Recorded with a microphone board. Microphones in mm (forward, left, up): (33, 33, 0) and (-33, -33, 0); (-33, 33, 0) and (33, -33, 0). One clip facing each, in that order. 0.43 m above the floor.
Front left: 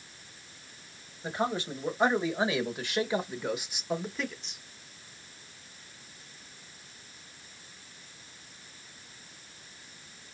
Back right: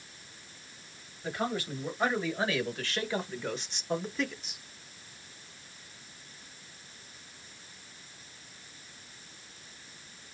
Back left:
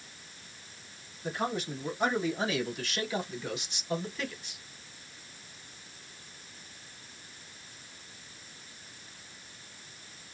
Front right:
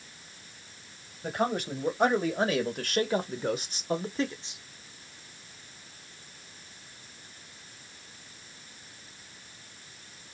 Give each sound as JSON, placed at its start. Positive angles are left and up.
{"t": 1.2, "sound": "a man speaking", "azimuth_deg": -20, "distance_m": 2.0}